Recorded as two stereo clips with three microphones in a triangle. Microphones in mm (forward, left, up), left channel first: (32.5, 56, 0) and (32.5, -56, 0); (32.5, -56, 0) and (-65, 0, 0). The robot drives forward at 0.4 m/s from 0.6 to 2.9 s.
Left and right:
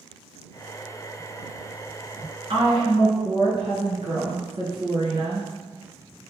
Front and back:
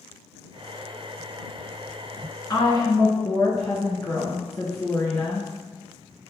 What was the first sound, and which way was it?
A woman speaking, 85° right.